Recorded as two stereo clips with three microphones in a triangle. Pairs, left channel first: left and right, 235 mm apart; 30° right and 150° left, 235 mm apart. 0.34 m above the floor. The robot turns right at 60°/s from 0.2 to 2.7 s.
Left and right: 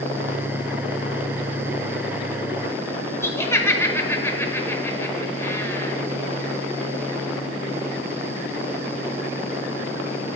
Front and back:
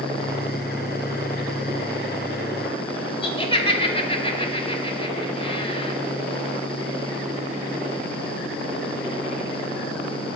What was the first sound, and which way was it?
Laughter, 15° left.